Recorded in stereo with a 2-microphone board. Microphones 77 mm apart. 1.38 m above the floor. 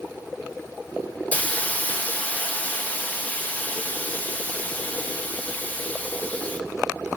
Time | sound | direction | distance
1.3 | a hiss | 20° left (ahead or behind) | 0.7 m